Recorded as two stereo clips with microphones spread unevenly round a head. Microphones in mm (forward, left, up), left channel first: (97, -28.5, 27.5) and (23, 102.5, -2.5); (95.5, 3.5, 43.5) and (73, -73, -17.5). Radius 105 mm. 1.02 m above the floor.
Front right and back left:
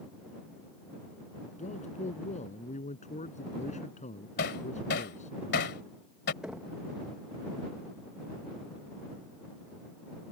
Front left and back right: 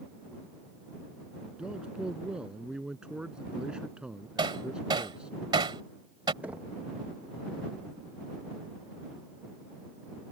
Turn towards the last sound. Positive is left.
turn(degrees=-160)